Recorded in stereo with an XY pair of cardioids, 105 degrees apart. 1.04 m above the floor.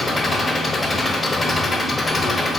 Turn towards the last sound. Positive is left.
turn(degrees=20)